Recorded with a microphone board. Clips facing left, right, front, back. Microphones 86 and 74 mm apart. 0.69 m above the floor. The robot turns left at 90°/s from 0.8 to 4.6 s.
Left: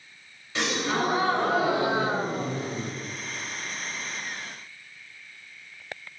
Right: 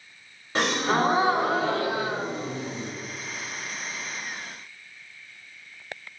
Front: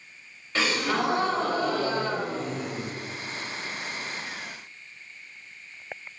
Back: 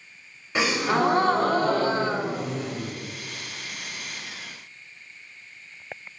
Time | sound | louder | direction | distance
0.6 | a gasp | right 3 dB, back 3 dB | 110° right | 0.6 m